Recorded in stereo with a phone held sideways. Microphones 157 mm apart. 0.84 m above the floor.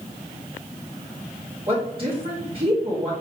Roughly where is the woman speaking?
Right.